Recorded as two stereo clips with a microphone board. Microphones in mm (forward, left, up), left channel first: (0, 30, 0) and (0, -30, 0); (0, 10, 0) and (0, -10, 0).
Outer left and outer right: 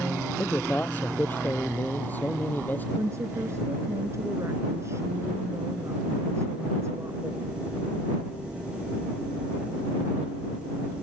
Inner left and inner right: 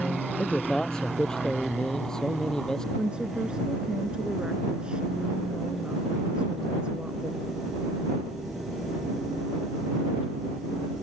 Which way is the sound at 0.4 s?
30° left (ahead or behind).